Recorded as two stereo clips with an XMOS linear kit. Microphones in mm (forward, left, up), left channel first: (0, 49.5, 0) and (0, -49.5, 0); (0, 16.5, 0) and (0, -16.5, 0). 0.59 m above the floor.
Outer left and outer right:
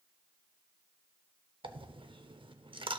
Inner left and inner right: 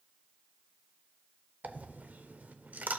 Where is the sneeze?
I don't hear a sneeze.